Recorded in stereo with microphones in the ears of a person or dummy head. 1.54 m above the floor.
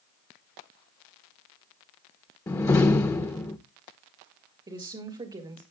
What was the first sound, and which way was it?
A door slam, 15° left (ahead or behind).